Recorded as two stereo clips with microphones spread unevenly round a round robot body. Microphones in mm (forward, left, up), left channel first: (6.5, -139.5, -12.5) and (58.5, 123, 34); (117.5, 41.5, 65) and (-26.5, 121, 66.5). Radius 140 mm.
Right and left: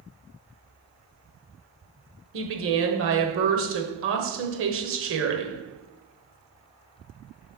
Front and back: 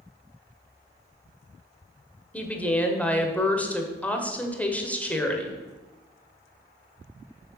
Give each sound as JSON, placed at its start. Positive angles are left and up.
{"t": 2.3, "sound": "a woman speaking", "azimuth_deg": 50, "distance_m": 1.3}